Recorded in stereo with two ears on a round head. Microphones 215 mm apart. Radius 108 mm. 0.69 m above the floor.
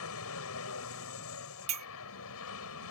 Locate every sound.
0.0 s an aircraft: 65° left (ahead or behind)
1.7 s a clink: 30° right (ahead or behind)